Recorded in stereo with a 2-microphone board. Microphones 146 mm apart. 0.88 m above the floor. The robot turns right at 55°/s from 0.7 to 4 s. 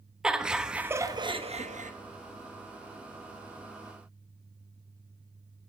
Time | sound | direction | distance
0.2 | laughter | 175° right | 0.9 m